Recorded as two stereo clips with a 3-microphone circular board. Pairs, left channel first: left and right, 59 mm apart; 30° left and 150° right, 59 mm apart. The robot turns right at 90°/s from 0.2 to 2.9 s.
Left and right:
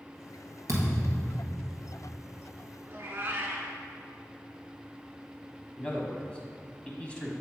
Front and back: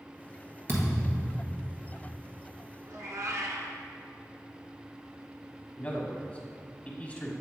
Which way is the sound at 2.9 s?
145° right.